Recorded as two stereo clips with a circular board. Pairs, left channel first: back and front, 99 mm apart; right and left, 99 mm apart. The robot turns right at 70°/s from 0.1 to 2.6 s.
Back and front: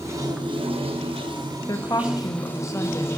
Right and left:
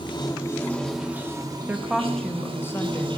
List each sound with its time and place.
0.0 s running water: 60° right, 0.9 m; by 3.2 s 115° left, 0.9 m
1.7 s a woman speaking: 150° left, 0.6 m; by 3.1 s 145° right, 0.6 m